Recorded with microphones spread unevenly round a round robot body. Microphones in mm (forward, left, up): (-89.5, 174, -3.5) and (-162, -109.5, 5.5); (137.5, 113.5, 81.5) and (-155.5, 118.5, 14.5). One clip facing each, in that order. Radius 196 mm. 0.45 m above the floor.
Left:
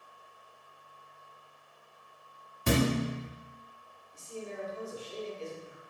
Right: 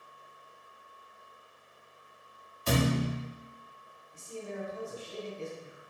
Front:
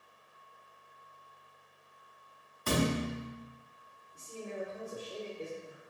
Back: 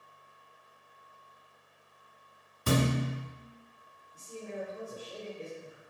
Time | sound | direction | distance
2.7 | a thud | 115° left | 1.1 m
4.1 | a man speaking | 110° right | 1.1 m